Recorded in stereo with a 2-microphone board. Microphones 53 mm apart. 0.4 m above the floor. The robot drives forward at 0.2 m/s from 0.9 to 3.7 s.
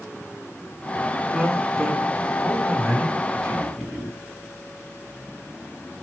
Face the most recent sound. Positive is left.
turn(degrees=5)  # may be behind; listen again after turning